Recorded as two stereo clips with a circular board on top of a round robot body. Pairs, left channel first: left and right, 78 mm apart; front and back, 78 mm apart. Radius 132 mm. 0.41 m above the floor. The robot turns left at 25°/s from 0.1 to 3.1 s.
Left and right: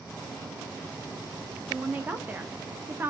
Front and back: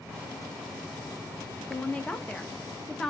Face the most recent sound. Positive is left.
turn(degrees=-75)